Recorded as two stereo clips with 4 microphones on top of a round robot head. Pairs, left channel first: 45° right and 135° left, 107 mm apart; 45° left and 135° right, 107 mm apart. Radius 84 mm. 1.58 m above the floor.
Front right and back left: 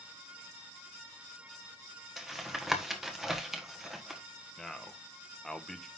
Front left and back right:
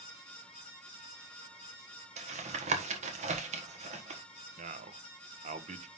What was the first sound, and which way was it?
Tapping, 140° right.